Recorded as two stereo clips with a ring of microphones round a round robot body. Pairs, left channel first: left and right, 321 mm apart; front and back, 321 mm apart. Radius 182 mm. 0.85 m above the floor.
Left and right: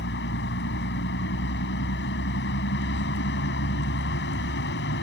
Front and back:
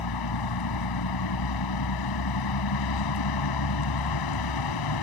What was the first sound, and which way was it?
A vehicle, 30° left.